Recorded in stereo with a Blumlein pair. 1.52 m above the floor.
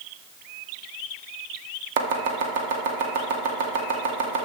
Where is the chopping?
50° right, 2.0 m.